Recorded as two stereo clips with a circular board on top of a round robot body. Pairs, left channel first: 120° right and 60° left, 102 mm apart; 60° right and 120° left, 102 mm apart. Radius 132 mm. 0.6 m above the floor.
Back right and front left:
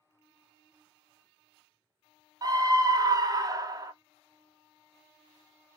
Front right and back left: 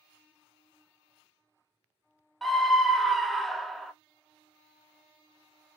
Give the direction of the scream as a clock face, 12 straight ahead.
11 o'clock.